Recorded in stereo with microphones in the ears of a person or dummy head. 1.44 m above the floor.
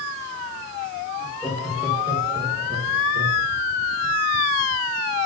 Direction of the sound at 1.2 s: 5° left (ahead or behind).